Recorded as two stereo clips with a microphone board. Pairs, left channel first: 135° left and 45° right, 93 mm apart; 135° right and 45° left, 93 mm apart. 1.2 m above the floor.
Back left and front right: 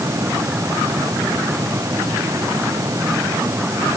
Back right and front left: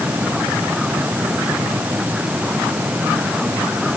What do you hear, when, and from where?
Only background noise.